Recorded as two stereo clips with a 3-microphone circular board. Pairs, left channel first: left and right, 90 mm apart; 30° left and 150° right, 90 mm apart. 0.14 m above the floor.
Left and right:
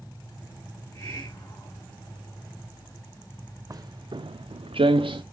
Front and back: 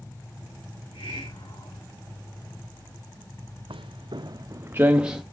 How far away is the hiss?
About 3.5 m.